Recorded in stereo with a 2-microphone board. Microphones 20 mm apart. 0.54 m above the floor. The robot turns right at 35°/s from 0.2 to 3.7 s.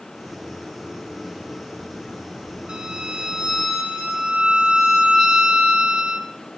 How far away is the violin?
About 0.5 m.